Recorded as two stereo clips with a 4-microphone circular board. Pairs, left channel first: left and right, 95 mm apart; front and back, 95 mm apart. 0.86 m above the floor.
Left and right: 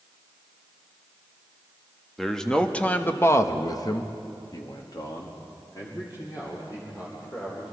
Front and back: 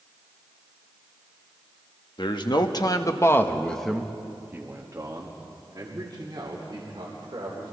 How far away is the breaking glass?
No breaking glass in this recording.